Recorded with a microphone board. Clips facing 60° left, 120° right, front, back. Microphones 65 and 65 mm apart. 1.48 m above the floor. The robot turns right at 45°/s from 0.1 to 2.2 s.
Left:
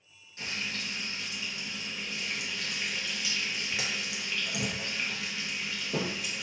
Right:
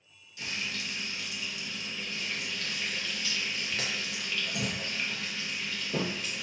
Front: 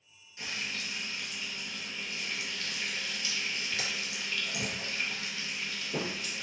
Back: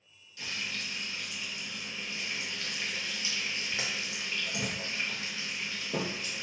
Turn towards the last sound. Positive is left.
turn(degrees=135)